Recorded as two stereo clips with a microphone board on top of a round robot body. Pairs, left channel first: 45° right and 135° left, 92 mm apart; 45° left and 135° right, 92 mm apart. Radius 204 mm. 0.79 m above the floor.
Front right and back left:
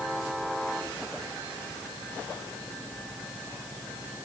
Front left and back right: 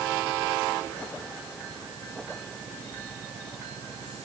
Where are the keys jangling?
No keys jangling in this recording.